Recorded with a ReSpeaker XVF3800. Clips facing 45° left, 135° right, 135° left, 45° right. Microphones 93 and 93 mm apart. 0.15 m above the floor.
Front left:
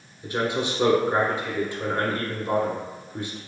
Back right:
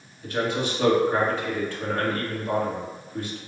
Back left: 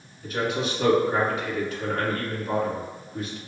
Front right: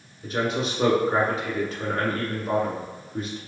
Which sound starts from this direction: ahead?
A man speaking, at 0.2 s.